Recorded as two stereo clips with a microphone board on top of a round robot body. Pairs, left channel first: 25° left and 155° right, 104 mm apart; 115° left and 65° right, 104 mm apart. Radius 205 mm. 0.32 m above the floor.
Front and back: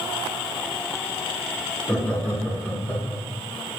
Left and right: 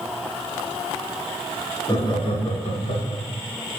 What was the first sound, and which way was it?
Laughter, 100° left.